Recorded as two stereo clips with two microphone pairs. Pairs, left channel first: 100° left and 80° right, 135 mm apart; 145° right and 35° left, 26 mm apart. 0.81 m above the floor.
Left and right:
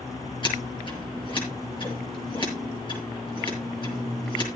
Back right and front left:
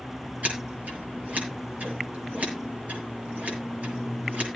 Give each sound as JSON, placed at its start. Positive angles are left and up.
{"t": 0.4, "sound": "scissors", "azimuth_deg": 50, "distance_m": 6.5}